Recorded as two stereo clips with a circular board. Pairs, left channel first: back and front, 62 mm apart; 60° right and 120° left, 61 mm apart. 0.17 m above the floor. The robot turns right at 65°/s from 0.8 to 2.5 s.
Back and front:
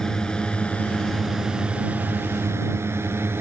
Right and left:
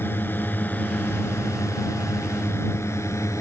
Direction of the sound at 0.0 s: 100° right.